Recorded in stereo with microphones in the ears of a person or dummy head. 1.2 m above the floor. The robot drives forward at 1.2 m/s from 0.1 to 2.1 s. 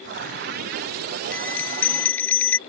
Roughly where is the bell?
Centre.